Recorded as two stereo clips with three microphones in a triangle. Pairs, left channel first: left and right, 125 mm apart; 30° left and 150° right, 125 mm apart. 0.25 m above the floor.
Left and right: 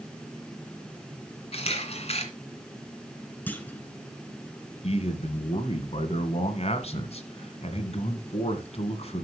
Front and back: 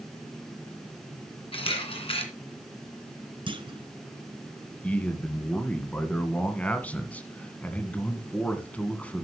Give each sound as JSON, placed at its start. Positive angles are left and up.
{"t": 1.5, "sound": "a camera shutter", "azimuth_deg": 65, "distance_m": 2.0}
{"t": 3.5, "sound": "a clunk", "azimuth_deg": 165, "distance_m": 1.0}
{"t": 4.8, "sound": "a man speaking", "azimuth_deg": 105, "distance_m": 1.7}